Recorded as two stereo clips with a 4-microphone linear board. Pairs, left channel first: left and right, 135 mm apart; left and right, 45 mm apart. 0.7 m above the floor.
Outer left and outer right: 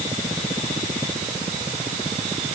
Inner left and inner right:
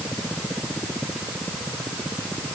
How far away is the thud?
I don't hear a thud.